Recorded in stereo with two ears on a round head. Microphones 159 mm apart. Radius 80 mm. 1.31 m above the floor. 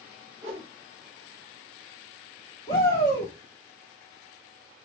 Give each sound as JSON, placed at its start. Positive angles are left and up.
{"t": 0.4, "sound": "a whoosh", "side_deg": -35, "distance_m": 1.2}
{"t": 2.7, "sound": "a shout", "side_deg": 30, "distance_m": 1.0}